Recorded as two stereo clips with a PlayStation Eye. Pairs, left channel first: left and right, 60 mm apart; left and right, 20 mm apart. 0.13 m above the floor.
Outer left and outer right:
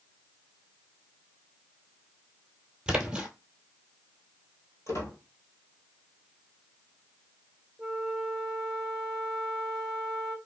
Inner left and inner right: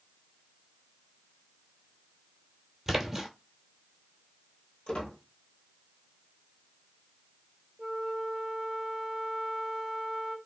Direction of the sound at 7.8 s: 10° right (ahead or behind).